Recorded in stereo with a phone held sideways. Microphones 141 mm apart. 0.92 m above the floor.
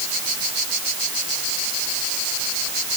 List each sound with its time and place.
Only background noise.